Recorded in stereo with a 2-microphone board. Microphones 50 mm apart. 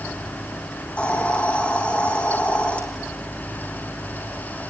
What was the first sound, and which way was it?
A hiss, 25° left (ahead or behind).